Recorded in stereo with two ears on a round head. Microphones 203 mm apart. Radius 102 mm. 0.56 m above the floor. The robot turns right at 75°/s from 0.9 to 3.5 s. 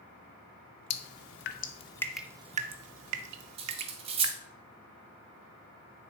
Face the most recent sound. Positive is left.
turn(degrees=-25)  # may be behind; listen again after turning